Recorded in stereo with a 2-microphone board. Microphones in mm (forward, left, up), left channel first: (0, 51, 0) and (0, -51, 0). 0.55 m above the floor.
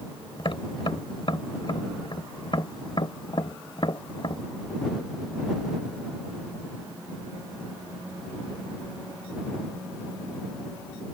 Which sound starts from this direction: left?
Tapping, at 0.4 s.